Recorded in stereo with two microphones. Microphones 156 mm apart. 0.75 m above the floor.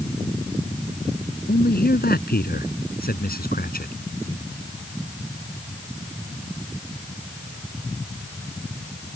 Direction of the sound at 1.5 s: 85° left.